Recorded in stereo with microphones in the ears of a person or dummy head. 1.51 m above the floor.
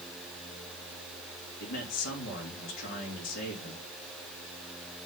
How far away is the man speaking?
About 3 m.